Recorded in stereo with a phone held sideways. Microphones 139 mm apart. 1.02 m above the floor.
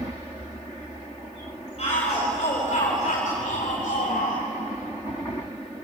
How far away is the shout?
About 5.5 m.